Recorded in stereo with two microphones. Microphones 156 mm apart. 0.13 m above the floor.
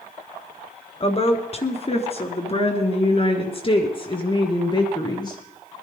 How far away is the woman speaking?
About 1.9 m.